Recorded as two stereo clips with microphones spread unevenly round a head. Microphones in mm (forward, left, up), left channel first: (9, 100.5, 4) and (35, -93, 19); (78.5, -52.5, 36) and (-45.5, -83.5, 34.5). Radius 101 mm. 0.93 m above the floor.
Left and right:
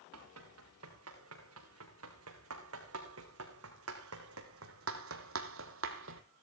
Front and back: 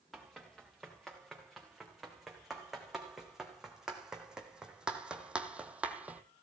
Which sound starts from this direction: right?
Running footsteps, at 0.1 s.